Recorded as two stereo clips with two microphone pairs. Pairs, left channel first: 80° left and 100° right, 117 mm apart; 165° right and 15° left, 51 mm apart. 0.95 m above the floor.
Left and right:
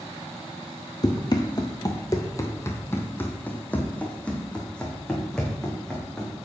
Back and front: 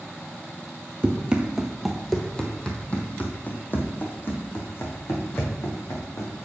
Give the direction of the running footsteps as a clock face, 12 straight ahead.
10 o'clock.